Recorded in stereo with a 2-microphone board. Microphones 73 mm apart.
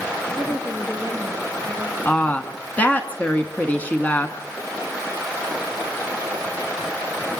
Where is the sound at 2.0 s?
25° left (ahead or behind), 1.2 m.